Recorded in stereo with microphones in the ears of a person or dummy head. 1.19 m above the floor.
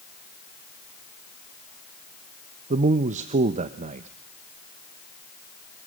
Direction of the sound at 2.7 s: 30° right (ahead or behind).